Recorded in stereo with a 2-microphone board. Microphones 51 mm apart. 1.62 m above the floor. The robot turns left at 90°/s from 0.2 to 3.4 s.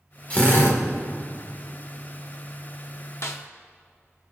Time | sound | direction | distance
0.3 | a drill | 150° left | 1.8 m
3.2 | a snare drum | 70° left (ahead or behind) | 0.9 m